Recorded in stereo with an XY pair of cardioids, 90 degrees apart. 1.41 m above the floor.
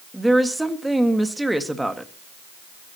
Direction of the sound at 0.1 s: 10° right.